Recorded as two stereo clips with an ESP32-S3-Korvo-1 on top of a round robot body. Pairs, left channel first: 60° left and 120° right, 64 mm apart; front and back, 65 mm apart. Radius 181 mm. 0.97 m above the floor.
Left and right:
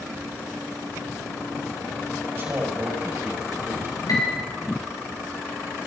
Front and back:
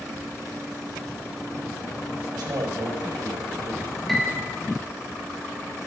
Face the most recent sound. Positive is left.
turn(degrees=90)